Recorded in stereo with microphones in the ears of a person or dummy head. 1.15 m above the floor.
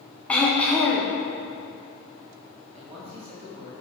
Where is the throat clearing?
5° left (ahead or behind), 1.5 m.